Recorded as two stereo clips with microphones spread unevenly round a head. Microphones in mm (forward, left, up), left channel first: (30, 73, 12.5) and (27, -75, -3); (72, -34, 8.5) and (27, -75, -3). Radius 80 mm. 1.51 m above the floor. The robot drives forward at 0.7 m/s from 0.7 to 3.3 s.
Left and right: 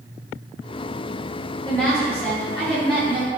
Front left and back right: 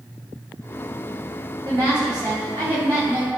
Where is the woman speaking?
170° left, 3 m; by 3.3 s 175° left, 4 m.